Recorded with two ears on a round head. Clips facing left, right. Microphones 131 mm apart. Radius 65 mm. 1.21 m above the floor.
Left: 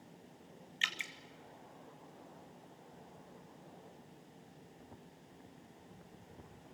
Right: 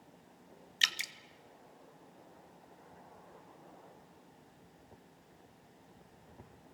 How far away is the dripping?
About 1.0 m.